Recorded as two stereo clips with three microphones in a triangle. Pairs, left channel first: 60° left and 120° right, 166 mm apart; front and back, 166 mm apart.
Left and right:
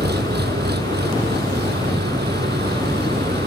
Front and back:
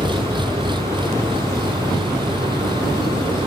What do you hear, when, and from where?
0.0 s an engine running: 120° right